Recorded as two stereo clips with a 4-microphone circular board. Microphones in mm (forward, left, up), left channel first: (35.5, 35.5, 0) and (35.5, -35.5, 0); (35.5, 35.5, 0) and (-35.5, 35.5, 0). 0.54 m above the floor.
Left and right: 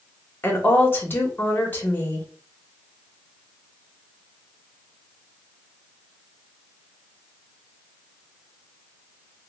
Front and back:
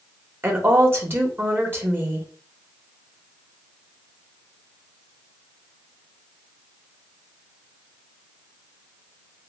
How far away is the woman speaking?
About 1.4 m.